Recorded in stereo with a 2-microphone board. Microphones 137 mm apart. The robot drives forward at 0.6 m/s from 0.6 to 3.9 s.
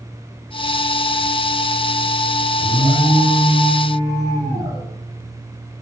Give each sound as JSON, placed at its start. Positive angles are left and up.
{"t": 2.6, "sound": "an alarm", "side_deg": -25, "distance_m": 6.0}